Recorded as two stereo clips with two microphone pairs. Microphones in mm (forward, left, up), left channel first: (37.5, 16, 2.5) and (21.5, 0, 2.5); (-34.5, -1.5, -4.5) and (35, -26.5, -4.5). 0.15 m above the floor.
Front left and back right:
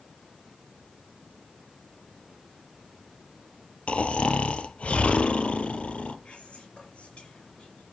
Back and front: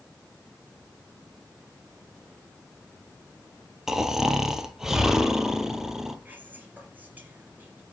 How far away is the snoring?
About 0.9 m.